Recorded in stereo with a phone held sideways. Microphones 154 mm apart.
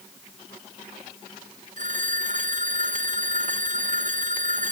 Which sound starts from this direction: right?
A phone ringing, at 1.8 s.